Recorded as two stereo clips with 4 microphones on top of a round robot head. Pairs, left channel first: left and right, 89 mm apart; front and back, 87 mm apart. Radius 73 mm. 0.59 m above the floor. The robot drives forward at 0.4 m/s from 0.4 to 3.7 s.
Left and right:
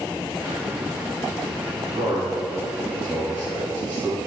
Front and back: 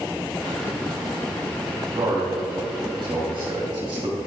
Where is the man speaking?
150° right, 1.6 m; by 4.2 s 160° right, 2 m.